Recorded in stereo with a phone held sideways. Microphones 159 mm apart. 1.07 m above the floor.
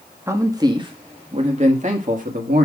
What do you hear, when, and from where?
0.3 s a man speaking: 15° right (ahead or behind), 1.5 m; by 2.6 s 60° right (ahead or behind), 1.9 m